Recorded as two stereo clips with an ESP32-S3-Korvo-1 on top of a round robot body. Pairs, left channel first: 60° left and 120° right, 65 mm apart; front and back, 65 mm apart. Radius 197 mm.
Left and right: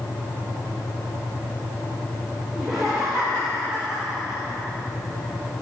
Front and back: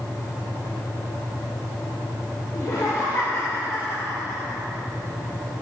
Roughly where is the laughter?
Ahead right.